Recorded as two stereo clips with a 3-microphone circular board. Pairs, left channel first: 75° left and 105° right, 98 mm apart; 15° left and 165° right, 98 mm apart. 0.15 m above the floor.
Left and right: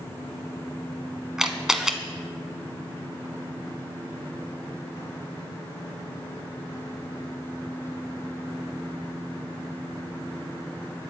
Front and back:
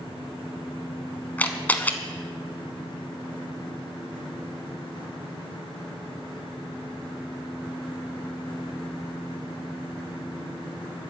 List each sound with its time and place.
1.4 s a camera shutter: 30° right, 1.1 m